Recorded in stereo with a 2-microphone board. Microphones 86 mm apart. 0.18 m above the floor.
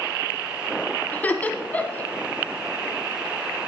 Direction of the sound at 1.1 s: 20° left (ahead or behind).